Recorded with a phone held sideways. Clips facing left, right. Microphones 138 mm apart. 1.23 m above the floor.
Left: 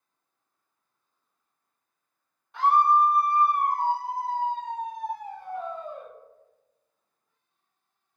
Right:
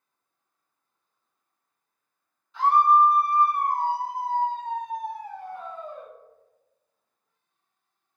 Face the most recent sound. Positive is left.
turn(degrees=20)  # may be behind; listen again after turning